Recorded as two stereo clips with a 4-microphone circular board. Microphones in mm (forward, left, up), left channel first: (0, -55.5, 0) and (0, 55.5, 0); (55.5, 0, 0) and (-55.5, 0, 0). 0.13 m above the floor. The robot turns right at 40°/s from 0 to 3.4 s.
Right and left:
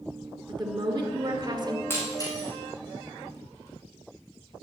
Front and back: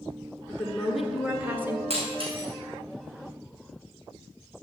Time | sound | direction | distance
0.5 | a woman speaking | 70° left | 1.6 m
1.9 | breaking glass | 160° right | 3.5 m